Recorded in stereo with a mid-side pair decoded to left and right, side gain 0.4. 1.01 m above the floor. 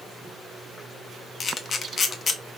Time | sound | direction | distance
1.4 | a camera shutter | 45° left | 0.7 m